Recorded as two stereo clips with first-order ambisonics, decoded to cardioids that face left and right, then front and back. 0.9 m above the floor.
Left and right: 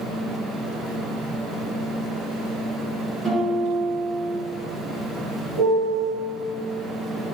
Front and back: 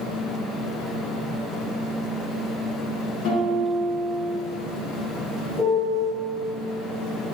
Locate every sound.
3.2 s a guitar: 15° right, 1.0 m
5.6 s a piano: 65° right, 0.9 m